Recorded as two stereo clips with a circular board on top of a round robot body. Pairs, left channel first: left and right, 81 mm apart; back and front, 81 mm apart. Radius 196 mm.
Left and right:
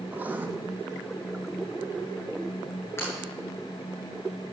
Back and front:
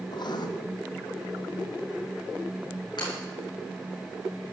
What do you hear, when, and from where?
0.1 s writing: 160° right, 1.6 m
3.0 s breaking glass: 150° left, 8 m